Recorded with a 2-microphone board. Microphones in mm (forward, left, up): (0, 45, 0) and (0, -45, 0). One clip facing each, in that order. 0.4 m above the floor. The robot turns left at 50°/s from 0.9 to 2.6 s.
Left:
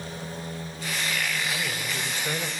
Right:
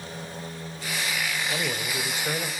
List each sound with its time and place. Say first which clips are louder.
1.5 s a man speaking: right 2 dB; 125° right, 1.3 m; by 2.5 s 175° right, 1.3 m